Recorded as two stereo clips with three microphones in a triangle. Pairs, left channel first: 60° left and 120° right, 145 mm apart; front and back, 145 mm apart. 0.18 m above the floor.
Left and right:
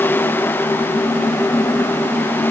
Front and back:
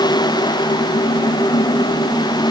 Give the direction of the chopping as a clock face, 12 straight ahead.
I don't hear chopping.